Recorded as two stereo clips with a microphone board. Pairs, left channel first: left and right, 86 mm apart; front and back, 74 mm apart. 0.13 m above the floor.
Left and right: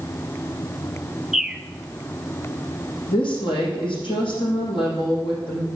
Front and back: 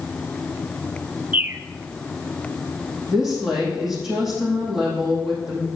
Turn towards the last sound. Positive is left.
turn(degrees=95)